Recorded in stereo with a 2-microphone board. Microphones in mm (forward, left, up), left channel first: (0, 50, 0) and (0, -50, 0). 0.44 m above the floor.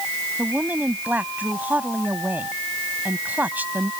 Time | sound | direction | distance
0.4 | a woman speaking | 15° right (ahead or behind) | ?